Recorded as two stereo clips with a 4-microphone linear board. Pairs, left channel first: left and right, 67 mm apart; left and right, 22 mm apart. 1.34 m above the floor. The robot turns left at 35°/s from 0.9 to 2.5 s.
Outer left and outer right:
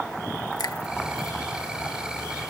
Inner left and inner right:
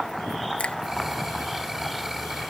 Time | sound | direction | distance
0.6 | a finger snap | 75° left (ahead or behind) | ?